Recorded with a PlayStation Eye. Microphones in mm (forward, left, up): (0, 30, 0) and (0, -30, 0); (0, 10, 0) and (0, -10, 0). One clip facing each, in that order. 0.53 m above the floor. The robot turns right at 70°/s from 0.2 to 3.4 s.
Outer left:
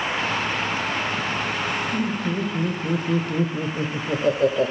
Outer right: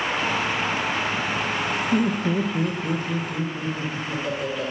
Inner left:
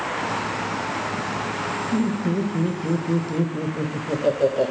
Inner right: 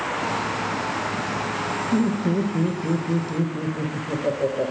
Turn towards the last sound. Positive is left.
turn(degrees=50)